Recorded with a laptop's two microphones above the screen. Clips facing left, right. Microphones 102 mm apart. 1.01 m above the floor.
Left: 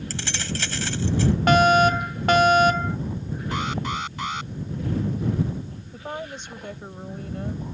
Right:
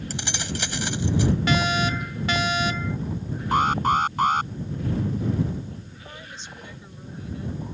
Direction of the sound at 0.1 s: 15° right (ahead or behind).